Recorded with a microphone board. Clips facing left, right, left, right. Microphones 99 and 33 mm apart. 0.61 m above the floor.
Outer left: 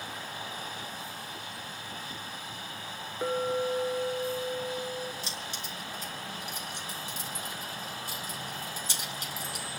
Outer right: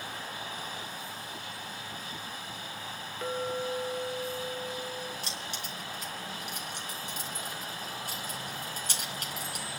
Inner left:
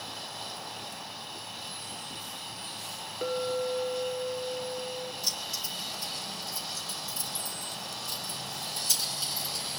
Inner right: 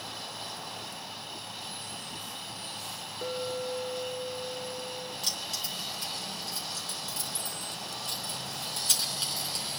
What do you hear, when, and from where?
3.2 s a clink: 20° left (ahead or behind), 1.2 m
5.2 s keys jangling: 60° right (ahead or behind), 4.5 m